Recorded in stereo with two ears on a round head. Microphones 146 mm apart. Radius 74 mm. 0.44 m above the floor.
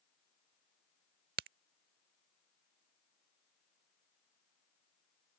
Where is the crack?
60° right (ahead or behind).